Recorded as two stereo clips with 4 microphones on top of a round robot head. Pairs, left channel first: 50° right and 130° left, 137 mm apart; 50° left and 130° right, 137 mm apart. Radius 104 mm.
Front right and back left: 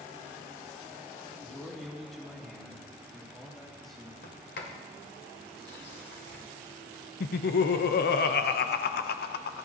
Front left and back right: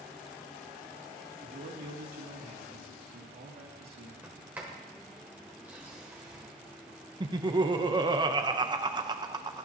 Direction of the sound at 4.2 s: 50° right.